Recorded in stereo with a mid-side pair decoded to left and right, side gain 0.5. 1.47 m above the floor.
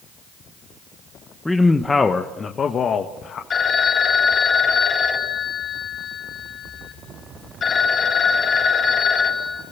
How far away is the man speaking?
About 1.2 m.